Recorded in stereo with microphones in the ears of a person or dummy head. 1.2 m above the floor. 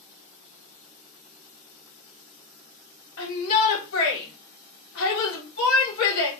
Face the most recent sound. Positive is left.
turn(degrees=75)  # may be behind; listen again after turning